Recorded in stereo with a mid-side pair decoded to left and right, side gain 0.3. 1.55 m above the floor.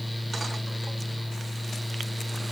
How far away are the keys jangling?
No keys jangling in this recording.